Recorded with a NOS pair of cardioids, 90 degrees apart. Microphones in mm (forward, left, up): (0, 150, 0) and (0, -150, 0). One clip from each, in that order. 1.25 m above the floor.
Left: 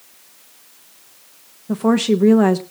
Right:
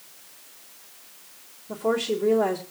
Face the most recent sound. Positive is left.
turn(degrees=65)